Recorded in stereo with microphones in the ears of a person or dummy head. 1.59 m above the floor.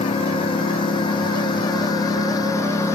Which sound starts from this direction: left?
A lawn mower, at 0.0 s.